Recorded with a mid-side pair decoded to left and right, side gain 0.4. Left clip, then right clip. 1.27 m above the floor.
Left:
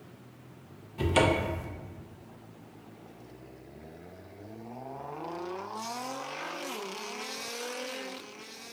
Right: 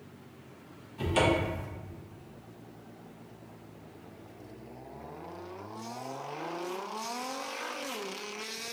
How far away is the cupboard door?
About 0.7 m.